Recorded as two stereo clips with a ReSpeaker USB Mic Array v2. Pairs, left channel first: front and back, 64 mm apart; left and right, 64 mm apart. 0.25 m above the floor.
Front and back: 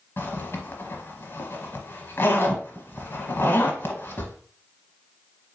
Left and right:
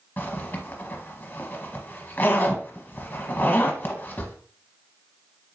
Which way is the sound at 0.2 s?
40° left.